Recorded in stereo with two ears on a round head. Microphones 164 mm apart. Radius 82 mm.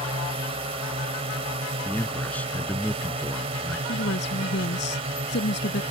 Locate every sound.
0.0 s a drone: 30° right (ahead or behind)
1.9 s a man speaking: 10° left (ahead or behind)
3.9 s a woman speaking: 65° left (ahead or behind)